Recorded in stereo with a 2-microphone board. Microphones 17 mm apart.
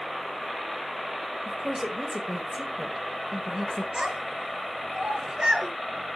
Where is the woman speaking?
30° right (ahead or behind), 1.0 m.